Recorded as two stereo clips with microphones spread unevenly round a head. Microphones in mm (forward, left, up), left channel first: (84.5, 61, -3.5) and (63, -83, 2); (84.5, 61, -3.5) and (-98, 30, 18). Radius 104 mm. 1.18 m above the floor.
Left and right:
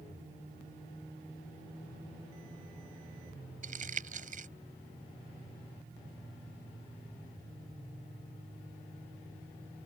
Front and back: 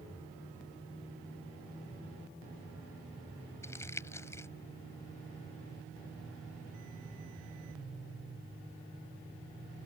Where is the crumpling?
70° right.